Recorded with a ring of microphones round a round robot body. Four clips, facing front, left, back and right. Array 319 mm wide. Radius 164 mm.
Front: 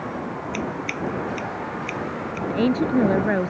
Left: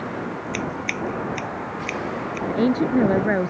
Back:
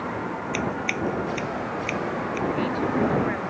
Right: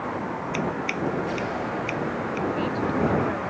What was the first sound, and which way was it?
Scissors, 115° left.